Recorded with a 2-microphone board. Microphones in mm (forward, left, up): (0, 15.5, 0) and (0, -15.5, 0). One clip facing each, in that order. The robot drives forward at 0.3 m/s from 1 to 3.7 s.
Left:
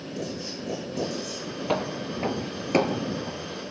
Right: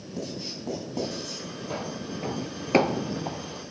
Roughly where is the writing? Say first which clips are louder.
Even; right.